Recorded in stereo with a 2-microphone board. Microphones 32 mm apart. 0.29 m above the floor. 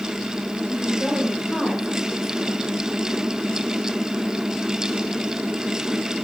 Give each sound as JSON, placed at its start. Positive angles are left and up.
{"t": 0.7, "sound": "a woman speaking", "side_deg": -10, "distance_m": 6.0}